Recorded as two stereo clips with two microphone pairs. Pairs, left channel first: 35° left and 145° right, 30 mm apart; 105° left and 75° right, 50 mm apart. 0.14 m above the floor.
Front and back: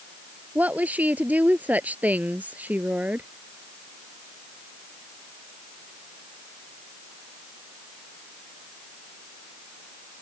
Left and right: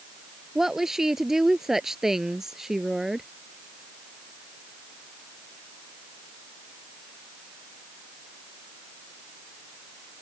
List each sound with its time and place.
0.6 s a woman speaking: 155° right